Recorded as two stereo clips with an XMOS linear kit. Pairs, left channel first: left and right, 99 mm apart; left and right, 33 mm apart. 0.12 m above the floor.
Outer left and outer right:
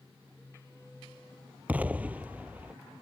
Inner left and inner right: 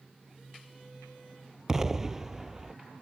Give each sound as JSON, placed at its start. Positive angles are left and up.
{"t": 1.7, "sound": "an explosion", "side_deg": -15}